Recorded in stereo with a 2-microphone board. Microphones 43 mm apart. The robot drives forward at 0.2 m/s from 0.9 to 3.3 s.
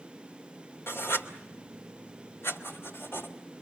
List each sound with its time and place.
0.9 s writing: 75° left (ahead or behind), 2.5 m; by 3.3 s 65° left (ahead or behind), 2.5 m